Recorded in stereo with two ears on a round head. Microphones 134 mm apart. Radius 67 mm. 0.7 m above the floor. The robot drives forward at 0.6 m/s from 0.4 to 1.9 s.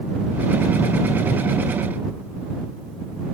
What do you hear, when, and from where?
Only background noise.